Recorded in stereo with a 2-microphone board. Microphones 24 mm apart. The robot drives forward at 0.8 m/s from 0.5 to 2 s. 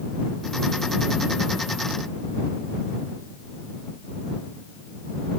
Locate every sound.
Only background noise.